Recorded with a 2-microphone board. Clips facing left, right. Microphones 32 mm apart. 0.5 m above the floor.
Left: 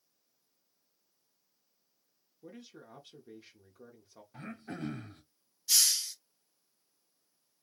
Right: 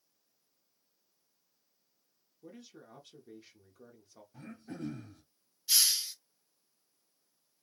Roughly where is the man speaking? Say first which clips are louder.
Left 1 dB; centre.